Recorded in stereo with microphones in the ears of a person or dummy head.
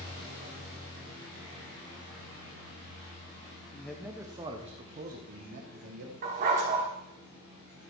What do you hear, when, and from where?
3.7 s a man speaking: 15° left (ahead or behind), 0.7 m; by 6.1 s 55° right (ahead or behind), 1.5 m
6.2 s a dog barking: 40° right (ahead or behind), 1.4 m